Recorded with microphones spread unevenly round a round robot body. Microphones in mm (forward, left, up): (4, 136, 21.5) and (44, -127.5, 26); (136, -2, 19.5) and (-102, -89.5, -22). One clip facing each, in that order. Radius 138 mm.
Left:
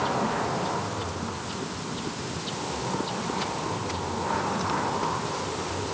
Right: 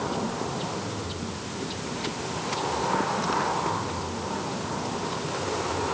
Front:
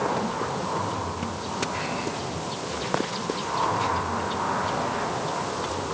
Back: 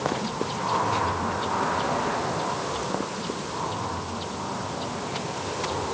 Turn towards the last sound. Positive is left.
No sound to turn to.